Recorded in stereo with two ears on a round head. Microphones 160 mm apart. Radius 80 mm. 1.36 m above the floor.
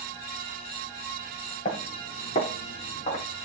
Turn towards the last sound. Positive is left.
turn(degrees=40)  # may be behind; listen again after turning